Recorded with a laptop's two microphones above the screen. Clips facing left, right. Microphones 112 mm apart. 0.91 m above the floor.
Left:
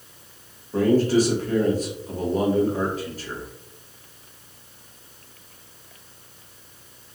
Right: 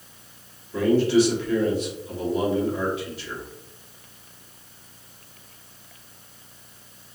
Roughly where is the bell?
No bell in this recording.